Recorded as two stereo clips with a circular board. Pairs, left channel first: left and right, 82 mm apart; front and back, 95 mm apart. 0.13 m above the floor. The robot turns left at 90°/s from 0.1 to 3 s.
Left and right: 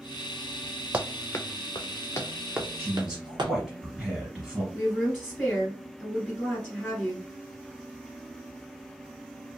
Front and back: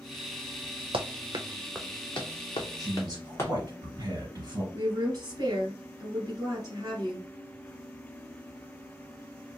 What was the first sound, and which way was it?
Running footsteps, 160° right.